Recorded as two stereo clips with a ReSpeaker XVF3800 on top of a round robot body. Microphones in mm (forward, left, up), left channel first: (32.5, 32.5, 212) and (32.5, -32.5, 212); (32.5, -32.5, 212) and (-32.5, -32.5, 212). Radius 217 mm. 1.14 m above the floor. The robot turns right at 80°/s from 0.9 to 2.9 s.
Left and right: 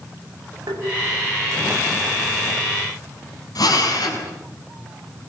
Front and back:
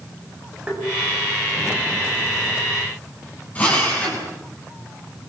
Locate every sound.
0.7 s tapping: 110° right, 8 m
3.5 s a drill: 70° left, 7.5 m